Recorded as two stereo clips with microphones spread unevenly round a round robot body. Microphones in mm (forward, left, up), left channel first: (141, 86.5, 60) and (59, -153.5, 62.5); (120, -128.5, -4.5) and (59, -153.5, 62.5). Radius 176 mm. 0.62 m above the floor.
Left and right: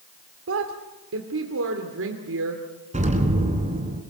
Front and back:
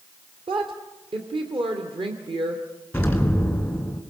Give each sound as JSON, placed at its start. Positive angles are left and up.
{"t": 0.5, "sound": "a woman speaking", "azimuth_deg": -140, "distance_m": 2.0}
{"t": 2.9, "sound": "an explosion", "azimuth_deg": -45, "distance_m": 3.5}